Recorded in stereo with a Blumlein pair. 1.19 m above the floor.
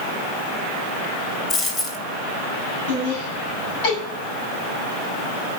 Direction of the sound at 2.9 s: 45° left.